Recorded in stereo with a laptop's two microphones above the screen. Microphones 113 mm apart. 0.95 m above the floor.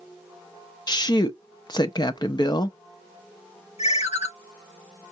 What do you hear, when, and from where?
0.9 s a woman speaking: 40° left (ahead or behind), 0.5 m
3.8 s a ringtone: 70° left (ahead or behind), 0.9 m